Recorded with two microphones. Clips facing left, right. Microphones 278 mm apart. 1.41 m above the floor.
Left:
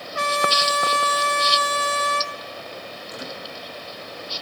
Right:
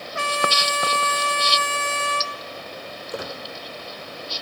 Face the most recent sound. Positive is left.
turn(degrees=-80)